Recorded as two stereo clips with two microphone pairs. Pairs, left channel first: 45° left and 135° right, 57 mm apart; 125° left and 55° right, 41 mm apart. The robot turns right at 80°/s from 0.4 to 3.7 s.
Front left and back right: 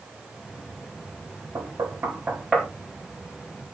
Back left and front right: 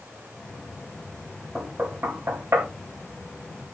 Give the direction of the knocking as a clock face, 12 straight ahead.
4 o'clock.